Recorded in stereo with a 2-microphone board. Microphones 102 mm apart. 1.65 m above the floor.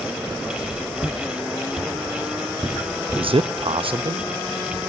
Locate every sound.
1.0 s footsteps: 10° left (ahead or behind), 3.5 m; by 3.3 s centre (ahead or behind), 4.5 m
3.2 s a man speaking: 60° right (ahead or behind), 0.7 m